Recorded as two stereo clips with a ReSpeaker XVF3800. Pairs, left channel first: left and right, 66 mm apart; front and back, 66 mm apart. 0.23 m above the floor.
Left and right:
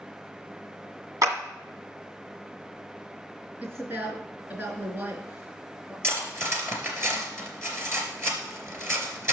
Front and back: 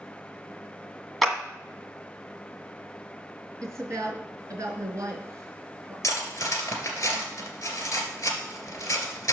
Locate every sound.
1.2 s a clap: 90° right, 1.6 m
3.6 s a woman speaking: 145° right, 4 m
6.0 s cutlery clinking: 40° right, 2.5 m